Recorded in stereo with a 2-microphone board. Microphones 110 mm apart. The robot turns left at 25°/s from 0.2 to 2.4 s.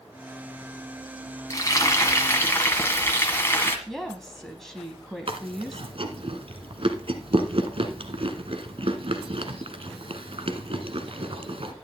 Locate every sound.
1.5 s frying: 30° left (ahead or behind), 1.6 m; by 3.8 s 20° left (ahead or behind), 1.6 m
3.9 s a woman speaking: 5° left (ahead or behind), 1.0 m
5.3 s chewing: 60° right (ahead or behind), 1.2 m